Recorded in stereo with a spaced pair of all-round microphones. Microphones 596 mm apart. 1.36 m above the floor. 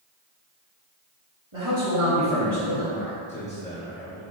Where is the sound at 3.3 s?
10° left (ahead or behind), 1.4 m.